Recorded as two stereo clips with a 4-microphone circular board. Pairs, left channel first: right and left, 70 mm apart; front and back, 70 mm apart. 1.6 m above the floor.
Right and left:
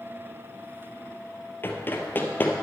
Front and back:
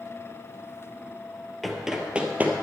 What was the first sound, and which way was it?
Running footsteps, 90° right.